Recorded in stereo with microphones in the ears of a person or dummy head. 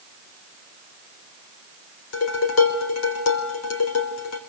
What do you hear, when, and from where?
2.1 s dishes clattering: 75° left (ahead or behind), 3.5 m